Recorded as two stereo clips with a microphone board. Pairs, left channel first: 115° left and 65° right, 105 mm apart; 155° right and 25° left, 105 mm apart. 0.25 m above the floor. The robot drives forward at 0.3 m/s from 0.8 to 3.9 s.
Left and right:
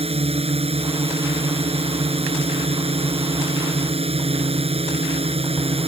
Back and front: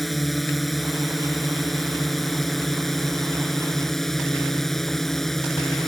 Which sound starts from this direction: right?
A drone, at 0.0 s.